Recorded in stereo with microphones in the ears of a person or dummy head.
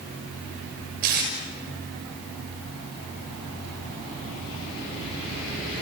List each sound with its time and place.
1.0 s tape being pulled: 50° right (ahead or behind), 6 m